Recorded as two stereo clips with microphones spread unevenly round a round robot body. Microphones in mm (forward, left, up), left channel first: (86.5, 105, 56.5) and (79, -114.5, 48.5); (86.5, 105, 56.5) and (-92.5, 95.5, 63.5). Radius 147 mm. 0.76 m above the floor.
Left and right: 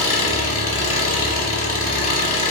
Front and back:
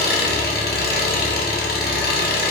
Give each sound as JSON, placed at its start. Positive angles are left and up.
{"t": 0.0, "sound": "an engine running", "azimuth_deg": 35, "distance_m": 1.1}